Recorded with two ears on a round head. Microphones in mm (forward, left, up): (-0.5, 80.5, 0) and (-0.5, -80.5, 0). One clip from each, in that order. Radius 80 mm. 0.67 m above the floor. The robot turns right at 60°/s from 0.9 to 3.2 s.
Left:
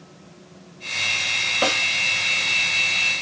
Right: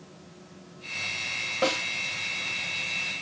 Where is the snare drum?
35° left (ahead or behind), 1.2 m; by 1.8 s 20° left (ahead or behind), 1.2 m.